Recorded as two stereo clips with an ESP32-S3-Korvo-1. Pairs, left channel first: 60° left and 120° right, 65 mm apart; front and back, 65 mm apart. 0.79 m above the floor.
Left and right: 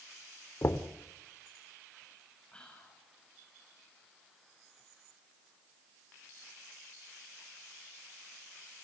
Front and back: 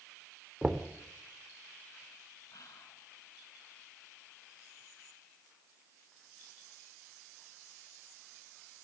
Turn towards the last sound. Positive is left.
turn(degrees=-15)